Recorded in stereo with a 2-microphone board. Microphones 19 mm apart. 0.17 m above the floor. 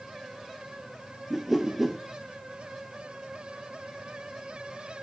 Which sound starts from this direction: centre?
A whoosh, at 1.3 s.